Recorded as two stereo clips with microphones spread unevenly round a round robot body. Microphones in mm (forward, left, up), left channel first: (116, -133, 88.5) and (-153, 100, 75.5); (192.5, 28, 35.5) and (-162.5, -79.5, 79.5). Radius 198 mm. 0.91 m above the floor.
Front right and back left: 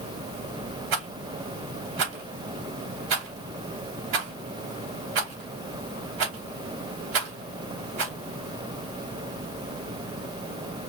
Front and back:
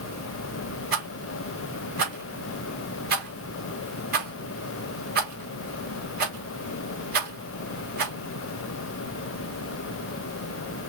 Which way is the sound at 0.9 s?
130° left.